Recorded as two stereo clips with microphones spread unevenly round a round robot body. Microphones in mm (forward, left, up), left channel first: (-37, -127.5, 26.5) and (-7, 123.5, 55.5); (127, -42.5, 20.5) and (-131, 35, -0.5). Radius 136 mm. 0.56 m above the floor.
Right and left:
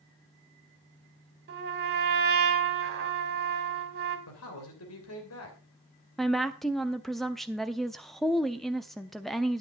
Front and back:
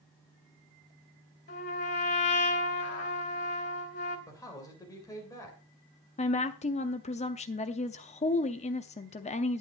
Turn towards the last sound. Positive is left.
turn(degrees=-30)